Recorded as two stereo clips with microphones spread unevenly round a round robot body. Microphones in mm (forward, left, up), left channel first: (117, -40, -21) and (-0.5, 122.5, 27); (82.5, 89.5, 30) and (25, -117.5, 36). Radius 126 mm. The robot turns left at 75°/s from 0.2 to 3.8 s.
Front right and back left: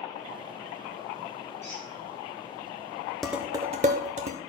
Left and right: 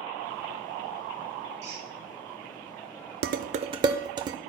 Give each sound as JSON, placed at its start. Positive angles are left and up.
{"t": 1.6, "sound": "a squeak", "azimuth_deg": -135, "distance_m": 4.5}
{"t": 3.2, "sound": "dishes clattering", "azimuth_deg": -130, "distance_m": 0.6}